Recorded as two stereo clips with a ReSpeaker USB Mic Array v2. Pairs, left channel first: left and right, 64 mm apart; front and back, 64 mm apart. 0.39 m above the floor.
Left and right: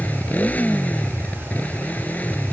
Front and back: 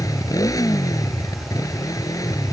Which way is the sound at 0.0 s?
25° left.